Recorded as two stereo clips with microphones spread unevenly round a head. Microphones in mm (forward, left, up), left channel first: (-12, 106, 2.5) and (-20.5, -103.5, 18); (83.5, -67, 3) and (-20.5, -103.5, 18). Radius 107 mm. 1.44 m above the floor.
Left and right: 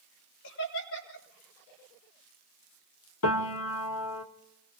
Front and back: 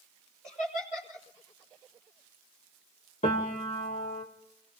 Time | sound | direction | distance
0.4 | laughter | 115° left | 4 m
3.2 | a piano | 75° left | 1.3 m